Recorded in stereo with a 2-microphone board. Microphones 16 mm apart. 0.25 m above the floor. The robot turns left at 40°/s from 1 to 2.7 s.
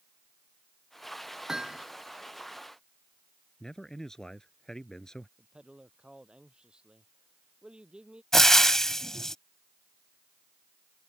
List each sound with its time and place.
1.5 s hammering: 35° right (ahead or behind); by 1.9 s 50° right (ahead or behind)
3.6 s a man speaking: 35° left (ahead or behind)
5.4 s a man speaking: 80° right
8.3 s frying: 25° left (ahead or behind)